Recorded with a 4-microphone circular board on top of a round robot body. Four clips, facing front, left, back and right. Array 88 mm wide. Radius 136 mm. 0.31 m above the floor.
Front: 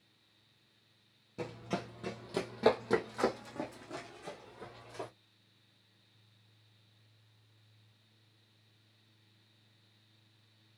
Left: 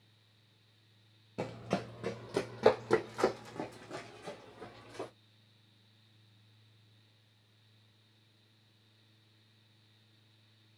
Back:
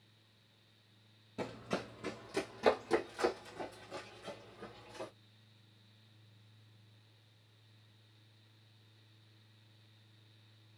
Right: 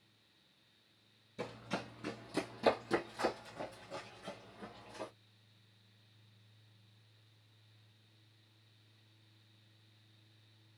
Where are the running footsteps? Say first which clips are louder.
Left 6 dB, front 1 dB; 95° left, 0.9 m; by 5.1 s 40° left, 2.5 m.